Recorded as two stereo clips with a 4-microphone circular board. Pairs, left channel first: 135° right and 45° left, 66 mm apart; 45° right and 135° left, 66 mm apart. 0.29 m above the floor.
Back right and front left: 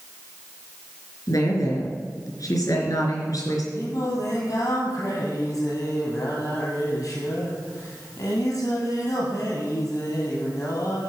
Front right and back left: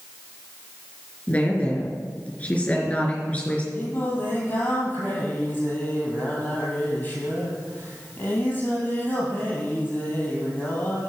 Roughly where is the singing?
Right.